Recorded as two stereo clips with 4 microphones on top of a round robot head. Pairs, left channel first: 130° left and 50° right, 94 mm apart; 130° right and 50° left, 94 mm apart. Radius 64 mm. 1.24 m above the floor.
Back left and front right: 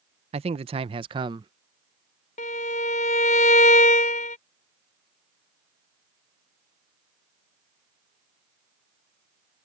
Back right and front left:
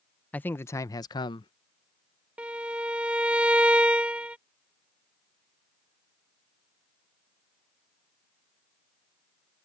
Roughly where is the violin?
Behind left.